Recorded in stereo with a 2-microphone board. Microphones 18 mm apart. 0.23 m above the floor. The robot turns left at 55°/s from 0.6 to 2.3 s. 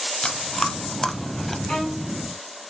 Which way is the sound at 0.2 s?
25° left (ahead or behind).